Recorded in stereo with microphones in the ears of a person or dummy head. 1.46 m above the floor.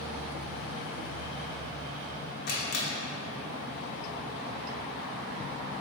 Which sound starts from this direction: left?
A camera shutter, at 2.5 s.